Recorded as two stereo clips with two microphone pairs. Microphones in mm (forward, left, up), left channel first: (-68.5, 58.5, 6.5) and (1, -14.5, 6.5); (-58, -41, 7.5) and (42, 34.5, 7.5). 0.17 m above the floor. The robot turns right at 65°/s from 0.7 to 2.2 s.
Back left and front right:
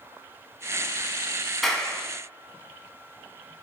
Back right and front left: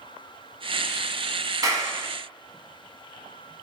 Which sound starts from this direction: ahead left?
A clap, at 1.6 s.